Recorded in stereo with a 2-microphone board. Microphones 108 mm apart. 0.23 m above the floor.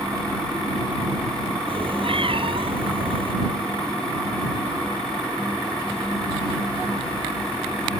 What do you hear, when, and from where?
1.7 s a cat meowing: 55° right (ahead or behind)